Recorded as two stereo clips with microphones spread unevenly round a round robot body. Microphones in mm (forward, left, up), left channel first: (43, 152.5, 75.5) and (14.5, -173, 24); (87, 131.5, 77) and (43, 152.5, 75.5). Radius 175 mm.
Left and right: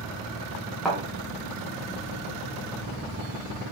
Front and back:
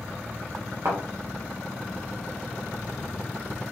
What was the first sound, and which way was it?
A thud, 170° left.